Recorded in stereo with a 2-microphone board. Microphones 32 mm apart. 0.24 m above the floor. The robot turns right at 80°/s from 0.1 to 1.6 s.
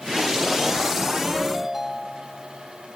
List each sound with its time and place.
1.3 s a ringtone: 10° left (ahead or behind); by 3.0 s 10° right (ahead or behind)